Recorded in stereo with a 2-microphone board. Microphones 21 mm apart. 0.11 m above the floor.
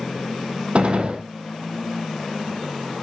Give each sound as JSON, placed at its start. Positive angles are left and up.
{"t": 0.8, "sound": "a gunshot", "side_deg": -50, "distance_m": 1.9}